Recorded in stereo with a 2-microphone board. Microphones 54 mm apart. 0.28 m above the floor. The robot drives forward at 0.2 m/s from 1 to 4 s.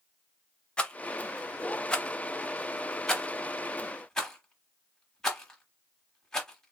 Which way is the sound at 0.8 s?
20° left (ahead or behind).